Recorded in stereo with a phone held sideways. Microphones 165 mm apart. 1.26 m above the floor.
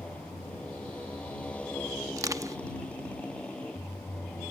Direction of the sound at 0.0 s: 5° left (ahead or behind).